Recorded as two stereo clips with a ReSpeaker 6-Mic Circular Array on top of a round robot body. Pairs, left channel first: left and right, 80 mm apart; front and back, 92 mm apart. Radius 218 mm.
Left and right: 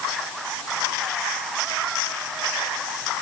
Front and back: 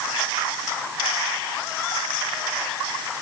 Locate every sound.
Only background noise.